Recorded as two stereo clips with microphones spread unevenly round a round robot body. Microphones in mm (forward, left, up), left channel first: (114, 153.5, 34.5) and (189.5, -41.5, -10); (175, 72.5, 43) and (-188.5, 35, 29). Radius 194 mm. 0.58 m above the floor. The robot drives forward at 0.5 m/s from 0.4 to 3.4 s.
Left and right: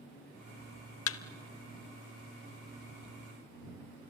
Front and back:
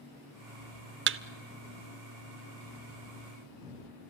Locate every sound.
1.1 s a thud: 125° left, 0.6 m; by 1.2 s 130° left, 0.6 m